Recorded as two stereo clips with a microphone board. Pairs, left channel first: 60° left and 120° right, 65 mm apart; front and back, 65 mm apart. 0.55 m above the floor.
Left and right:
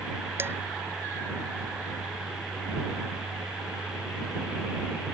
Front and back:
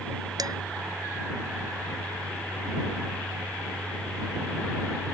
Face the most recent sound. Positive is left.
turn(degrees=-170)